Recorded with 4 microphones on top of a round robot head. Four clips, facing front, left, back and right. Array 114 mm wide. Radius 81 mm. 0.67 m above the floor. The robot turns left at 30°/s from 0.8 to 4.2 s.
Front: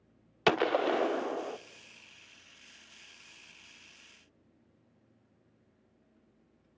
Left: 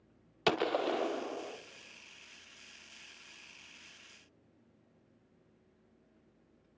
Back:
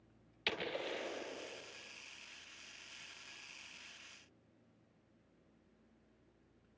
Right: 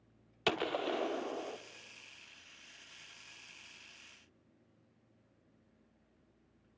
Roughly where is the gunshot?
Ahead.